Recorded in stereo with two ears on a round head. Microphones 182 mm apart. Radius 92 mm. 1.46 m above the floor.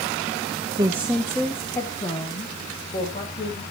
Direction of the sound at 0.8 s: 25° right (ahead or behind).